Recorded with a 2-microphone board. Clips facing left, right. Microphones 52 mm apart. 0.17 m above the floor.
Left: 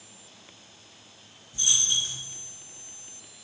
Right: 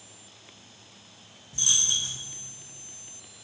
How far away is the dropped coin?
About 1.2 m.